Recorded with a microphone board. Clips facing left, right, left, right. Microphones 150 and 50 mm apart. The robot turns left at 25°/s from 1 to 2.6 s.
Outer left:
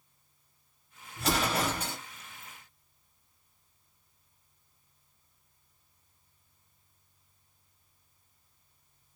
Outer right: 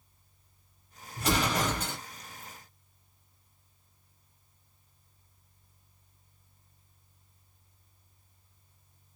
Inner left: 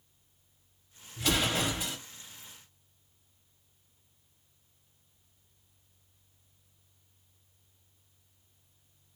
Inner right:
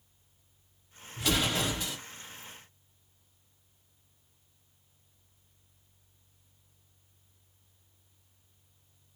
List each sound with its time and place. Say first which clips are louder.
1.2 s an explosion: outer right 1 dB, even; centre (ahead or behind), 0.9 m; by 2.0 s 15° left (ahead or behind), 0.9 m